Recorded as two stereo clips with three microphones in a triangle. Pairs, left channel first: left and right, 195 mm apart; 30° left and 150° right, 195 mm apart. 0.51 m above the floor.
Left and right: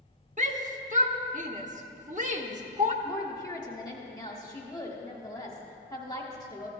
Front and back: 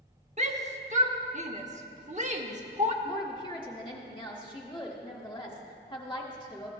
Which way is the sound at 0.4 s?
120° right.